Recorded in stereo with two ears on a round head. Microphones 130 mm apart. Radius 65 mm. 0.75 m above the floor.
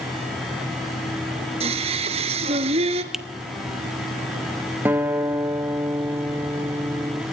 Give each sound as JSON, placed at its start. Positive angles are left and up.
{"t": 1.6, "sound": "singing", "side_deg": -40, "distance_m": 1.9}
{"t": 3.1, "sound": "a finger snap", "side_deg": -5, "distance_m": 0.9}
{"t": 4.8, "sound": "a guitar", "side_deg": -10, "distance_m": 1.3}